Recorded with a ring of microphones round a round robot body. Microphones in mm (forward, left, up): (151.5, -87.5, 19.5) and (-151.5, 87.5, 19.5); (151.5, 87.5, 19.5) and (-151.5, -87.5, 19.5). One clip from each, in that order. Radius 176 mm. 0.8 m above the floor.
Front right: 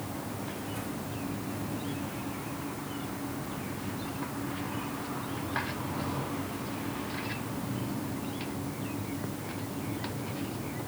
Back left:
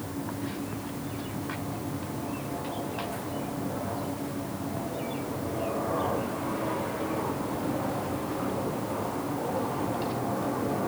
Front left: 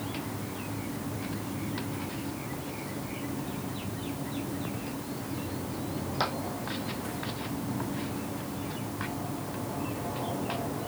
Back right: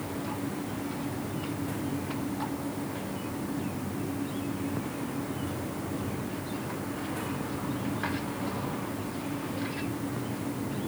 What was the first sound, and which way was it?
Only background noise.